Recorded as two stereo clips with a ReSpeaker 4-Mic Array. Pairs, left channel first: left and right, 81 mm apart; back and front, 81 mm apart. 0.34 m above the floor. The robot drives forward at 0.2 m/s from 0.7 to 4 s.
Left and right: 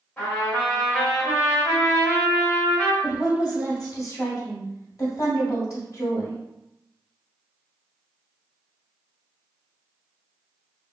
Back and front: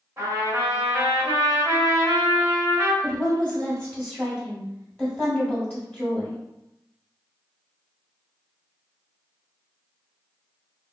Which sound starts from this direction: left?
A woman speaking, at 3.0 s.